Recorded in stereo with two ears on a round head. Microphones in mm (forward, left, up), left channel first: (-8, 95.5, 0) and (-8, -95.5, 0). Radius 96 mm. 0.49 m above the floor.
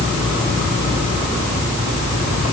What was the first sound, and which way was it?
Only background noise.